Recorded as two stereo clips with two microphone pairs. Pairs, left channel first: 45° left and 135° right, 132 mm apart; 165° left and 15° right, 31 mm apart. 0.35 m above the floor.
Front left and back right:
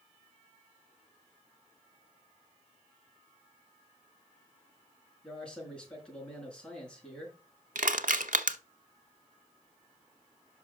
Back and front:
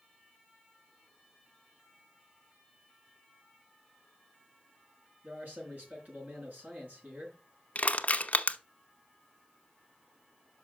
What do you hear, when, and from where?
5.2 s a man speaking: 40° right, 5 m
7.8 s crushing: 155° right, 0.9 m